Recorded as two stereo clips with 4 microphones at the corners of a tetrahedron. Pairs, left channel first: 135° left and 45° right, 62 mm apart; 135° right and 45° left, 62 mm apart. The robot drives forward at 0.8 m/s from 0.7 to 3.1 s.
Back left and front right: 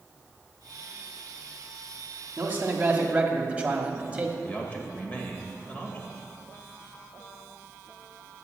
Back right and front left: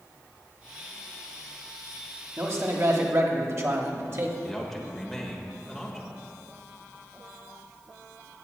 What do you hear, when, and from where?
2.4 s a man speaking: 10° left, 1.8 m; by 4.3 s 20° left, 1.3 m
4.4 s a man speaking: 145° left, 1.5 m